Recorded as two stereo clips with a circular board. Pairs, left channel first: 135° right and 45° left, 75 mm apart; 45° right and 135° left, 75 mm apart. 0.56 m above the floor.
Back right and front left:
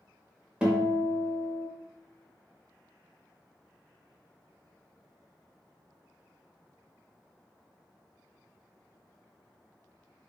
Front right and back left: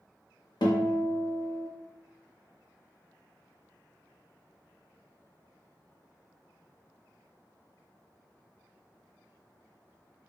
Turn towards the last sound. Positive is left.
turn(degrees=-35)